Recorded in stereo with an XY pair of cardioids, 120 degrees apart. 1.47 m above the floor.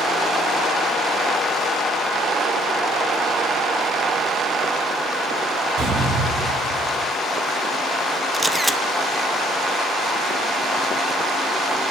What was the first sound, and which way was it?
A door slam, 65° right.